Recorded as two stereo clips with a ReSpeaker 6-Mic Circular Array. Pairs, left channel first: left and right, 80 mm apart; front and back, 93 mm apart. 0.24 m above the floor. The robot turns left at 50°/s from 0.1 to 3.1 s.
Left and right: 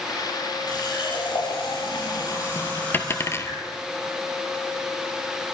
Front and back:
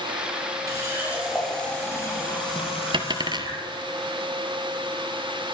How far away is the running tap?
About 5 m.